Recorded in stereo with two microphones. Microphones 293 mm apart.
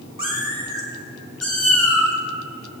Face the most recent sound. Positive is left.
turn(degrees=60)  # may be behind; listen again after turning